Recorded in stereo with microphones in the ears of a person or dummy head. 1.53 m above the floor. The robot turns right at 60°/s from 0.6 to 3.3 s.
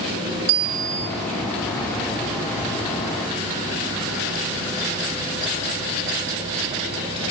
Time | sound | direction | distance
0.5 | a bicycle bell | 70° right (ahead or behind) | 4.5 m